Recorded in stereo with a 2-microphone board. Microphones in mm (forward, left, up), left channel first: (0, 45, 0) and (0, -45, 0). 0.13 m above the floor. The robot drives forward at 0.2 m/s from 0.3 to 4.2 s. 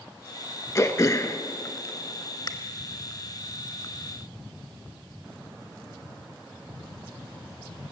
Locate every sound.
0.8 s throat clearing: 35° left (ahead or behind), 0.7 m; by 2.5 s 40° left (ahead or behind), 0.6 m